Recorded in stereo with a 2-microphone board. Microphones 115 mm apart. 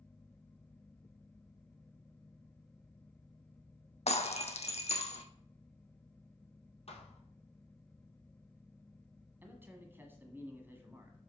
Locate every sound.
4.1 s breaking glass: 70° left (ahead or behind), 0.8 m
6.9 s a thud: 60° left (ahead or behind), 1.5 m
9.4 s a man speaking: 20° right (ahead or behind), 1.3 m